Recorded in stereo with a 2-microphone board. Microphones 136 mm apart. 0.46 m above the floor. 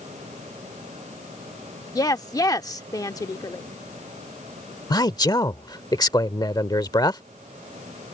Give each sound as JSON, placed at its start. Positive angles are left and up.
{"t": 1.9, "sound": "a woman speaking", "side_deg": 25}
{"t": 4.9, "sound": "a man speaking", "side_deg": 30}